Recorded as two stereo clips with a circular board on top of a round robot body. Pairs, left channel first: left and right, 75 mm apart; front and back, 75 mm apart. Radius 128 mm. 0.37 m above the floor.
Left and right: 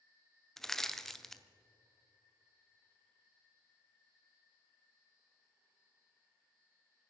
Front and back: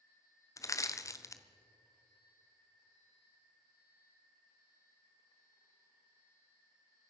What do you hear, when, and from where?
0.6 s crushing: 5° left, 1.2 m